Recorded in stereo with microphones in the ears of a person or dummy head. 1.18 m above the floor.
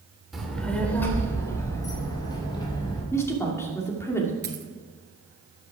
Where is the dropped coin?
20° right (ahead or behind), 1.5 m.